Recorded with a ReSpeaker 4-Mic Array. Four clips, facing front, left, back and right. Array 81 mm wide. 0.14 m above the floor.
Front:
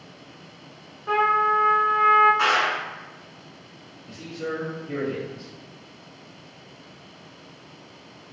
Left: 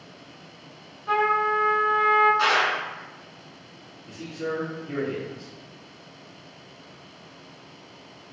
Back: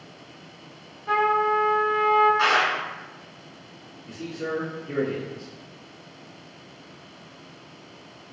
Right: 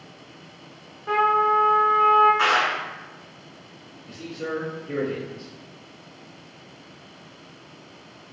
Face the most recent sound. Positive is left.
turn(degrees=120)